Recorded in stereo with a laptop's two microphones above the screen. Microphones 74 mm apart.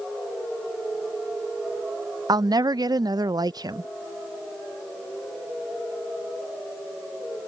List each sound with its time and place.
2.3 s a woman speaking: 60° right (ahead or behind)